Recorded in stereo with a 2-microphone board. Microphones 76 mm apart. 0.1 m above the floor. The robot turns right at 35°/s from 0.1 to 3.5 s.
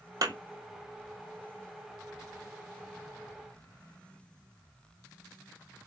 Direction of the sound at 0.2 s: 55° right (ahead or behind).